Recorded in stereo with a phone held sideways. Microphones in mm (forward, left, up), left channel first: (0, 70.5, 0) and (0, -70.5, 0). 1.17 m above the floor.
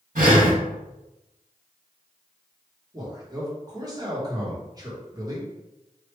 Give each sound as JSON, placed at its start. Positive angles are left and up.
{"t": 0.1, "sound": "breathing", "side_deg": -70, "distance_m": 2.0}
{"t": 2.9, "sound": "a man speaking", "side_deg": -25, "distance_m": 1.1}